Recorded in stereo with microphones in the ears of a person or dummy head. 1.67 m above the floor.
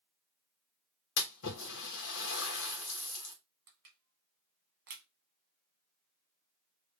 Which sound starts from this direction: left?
A splash, at 1.2 s.